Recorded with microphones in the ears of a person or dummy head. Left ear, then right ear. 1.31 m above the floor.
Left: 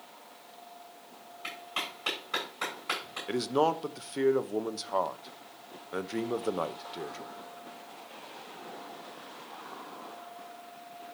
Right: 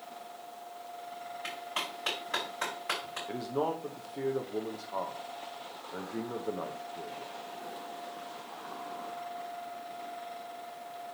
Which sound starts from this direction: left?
A man speaking, at 3.3 s.